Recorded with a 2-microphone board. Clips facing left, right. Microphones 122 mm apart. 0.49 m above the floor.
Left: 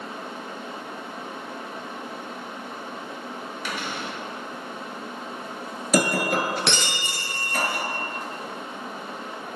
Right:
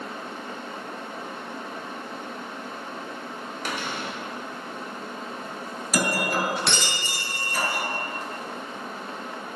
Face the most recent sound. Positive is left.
turn(degrees=60)  # may be behind; listen again after turning